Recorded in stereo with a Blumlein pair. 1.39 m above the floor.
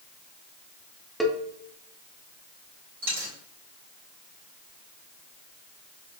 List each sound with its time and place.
1.2 s a cowbell: straight ahead, 0.8 m
3.0 s a dropped coin: 60° right, 2.5 m